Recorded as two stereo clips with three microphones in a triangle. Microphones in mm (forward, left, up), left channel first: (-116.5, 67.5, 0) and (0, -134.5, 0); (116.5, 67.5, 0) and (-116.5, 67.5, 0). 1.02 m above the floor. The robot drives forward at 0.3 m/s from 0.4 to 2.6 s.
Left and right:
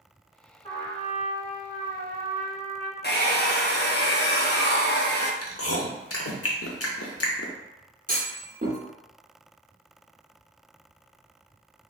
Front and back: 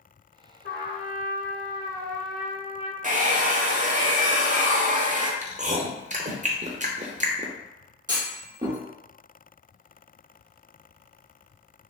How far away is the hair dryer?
About 0.5 m.